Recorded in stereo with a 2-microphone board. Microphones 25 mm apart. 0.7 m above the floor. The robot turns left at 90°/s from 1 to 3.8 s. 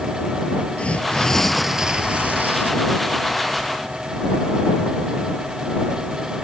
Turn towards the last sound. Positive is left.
turn(degrees=160)